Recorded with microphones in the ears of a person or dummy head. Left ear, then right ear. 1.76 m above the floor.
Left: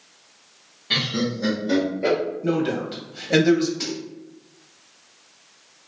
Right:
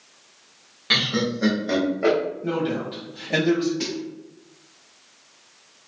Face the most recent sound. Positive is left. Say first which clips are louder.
# even
turn(degrees=10)  # may be behind; listen again after turning